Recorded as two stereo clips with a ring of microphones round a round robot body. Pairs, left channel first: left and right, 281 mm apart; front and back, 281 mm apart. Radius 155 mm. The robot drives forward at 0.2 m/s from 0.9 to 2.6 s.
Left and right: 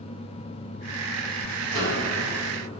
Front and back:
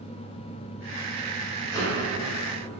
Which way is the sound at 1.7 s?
75° right.